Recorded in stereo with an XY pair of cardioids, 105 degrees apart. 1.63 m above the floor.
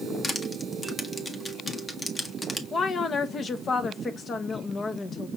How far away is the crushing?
About 1.1 m.